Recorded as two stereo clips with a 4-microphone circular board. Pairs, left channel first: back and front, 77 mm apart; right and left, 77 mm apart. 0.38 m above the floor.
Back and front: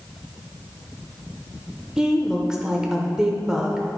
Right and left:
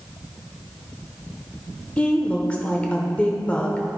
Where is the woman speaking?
60° right, 0.8 m.